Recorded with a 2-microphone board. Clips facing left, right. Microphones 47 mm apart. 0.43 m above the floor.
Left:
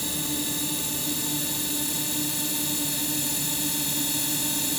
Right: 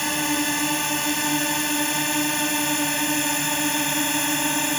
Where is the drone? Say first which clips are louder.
Right 8 dB; 65° right (ahead or behind); by 4.8 s 55° right (ahead or behind).